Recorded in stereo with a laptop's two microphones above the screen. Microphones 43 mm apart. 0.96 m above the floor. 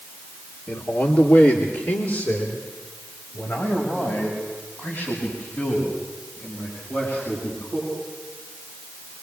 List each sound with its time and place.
0.7 s a man speaking: 70° left (ahead or behind), 2 m